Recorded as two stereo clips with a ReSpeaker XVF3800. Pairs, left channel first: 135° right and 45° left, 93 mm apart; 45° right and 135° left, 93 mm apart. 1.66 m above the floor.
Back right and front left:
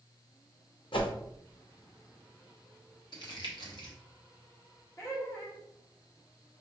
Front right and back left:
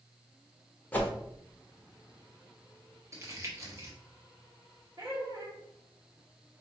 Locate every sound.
0.9 s a whoosh: 115° right, 0.7 m
3.1 s crumpling: 170° right, 1.0 m
5.0 s laughter: 170° left, 1.5 m